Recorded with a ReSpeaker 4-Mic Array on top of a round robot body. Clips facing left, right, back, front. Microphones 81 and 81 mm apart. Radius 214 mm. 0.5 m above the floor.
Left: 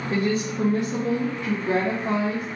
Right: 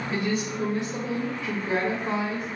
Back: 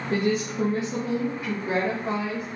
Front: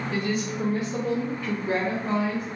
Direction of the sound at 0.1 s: 140° left.